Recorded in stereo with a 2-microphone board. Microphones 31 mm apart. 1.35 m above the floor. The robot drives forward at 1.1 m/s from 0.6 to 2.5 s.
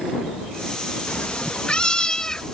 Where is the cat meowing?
55° left (ahead or behind); by 2.5 s 20° left (ahead or behind).